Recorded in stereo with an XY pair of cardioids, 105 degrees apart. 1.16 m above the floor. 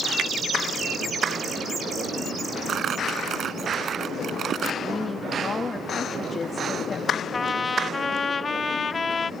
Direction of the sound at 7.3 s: 30° left.